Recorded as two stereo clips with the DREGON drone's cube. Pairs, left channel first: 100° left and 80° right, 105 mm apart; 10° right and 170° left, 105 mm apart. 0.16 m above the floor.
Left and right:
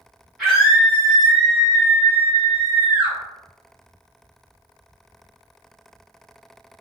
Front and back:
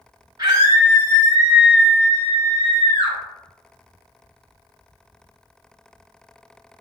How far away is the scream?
About 1.9 m.